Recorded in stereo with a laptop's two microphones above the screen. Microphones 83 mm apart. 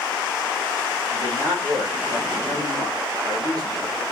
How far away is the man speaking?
About 4 m.